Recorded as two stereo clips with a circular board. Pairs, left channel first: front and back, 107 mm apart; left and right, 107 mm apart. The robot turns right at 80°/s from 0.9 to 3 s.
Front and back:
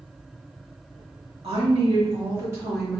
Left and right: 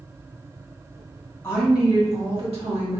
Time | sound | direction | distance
1.4 | a woman speaking | 155° left | 1.5 m